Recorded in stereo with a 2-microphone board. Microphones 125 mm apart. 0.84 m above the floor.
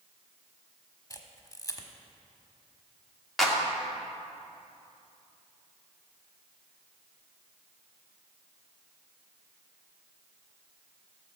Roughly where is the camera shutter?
Left.